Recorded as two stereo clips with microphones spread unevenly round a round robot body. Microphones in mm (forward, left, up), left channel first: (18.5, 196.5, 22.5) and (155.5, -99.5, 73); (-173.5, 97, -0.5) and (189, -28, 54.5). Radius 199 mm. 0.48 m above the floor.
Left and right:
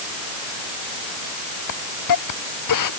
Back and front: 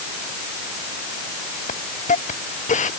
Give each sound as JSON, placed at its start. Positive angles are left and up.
{"t": 1.7, "sound": "a hiss", "azimuth_deg": 90}